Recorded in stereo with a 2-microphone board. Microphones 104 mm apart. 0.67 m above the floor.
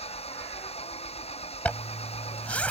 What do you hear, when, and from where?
0.0 s an engine running: 75° left (ahead or behind)
1.6 s a zipper: 10° left (ahead or behind)